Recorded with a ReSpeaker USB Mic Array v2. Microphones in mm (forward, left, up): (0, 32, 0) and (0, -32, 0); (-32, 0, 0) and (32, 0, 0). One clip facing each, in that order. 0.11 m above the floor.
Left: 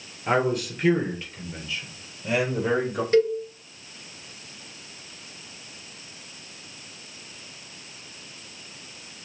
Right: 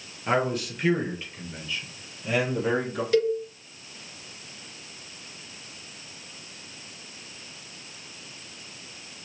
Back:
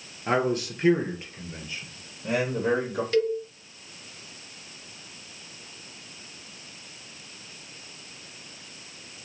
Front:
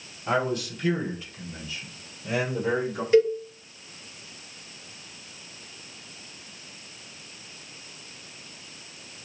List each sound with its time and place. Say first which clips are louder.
0.3 s a man speaking: left 2 dB, back 1 dB; straight behind, 2.0 m; by 3.0 s 170° left, 3.5 m
3.1 s a cowbell: left 2 dB, front 5 dB; 55° left, 1.1 m